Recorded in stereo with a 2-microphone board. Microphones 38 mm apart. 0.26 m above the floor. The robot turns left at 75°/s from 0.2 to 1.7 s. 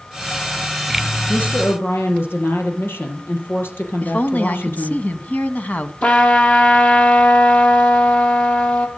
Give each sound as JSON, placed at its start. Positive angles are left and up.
{"t": 1.3, "sound": "a woman speaking", "azimuth_deg": 120, "distance_m": 5.5}
{"t": 4.0, "sound": "a woman speaking", "side_deg": 50, "distance_m": 1.8}
{"t": 6.0, "sound": "a trumpet", "side_deg": 45, "distance_m": 3.0}